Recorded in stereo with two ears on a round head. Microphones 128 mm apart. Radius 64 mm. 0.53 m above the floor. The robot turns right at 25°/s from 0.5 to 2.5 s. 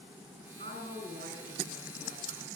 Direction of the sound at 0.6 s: 115° right.